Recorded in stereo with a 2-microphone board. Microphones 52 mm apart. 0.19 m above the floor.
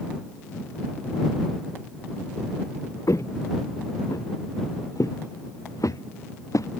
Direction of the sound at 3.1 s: 70° left (ahead or behind).